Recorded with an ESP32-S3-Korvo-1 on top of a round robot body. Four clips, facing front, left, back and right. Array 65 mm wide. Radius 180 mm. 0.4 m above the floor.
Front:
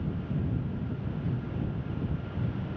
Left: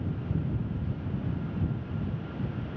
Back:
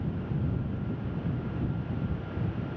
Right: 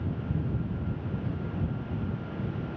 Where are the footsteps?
No footsteps in this recording.